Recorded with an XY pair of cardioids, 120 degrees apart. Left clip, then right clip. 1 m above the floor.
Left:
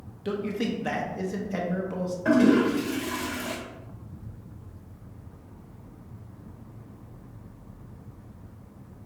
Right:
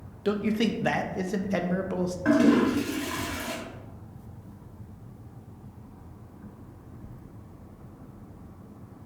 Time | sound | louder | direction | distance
0.2 | a man speaking | right 3 dB | 30° right | 0.6 m
2.2 | a toilet flushing | left 1 dB | 15° right | 1.9 m